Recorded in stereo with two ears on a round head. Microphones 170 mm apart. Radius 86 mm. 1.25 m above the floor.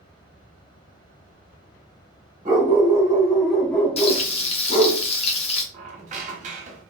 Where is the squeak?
40° right (ahead or behind), 0.6 m.